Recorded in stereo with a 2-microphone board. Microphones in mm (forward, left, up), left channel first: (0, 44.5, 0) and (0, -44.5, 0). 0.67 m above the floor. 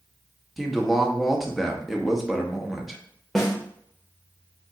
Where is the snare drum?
Centre (ahead or behind), 1.3 m.